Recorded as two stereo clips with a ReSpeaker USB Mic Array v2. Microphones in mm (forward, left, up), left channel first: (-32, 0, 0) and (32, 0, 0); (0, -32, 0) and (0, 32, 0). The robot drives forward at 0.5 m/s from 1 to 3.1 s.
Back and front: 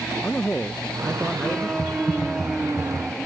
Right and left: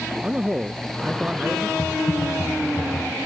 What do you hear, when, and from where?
0.2 s a man speaking: 125° left; by 1.7 s 145° left
1.8 s typing on a keyboard: 120° right; by 3.2 s 130° right